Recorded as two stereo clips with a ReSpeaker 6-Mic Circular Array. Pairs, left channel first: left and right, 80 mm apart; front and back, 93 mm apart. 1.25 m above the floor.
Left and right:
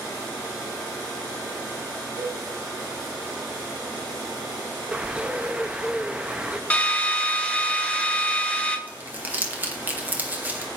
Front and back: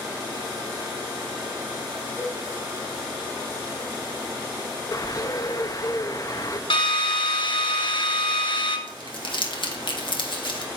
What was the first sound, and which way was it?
A cowbell, 70° right.